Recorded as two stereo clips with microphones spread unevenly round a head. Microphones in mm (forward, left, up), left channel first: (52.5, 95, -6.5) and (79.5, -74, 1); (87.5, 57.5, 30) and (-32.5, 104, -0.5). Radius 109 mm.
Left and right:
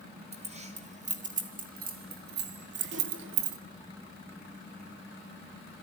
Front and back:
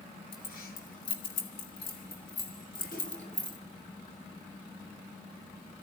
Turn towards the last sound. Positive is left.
turn(degrees=-95)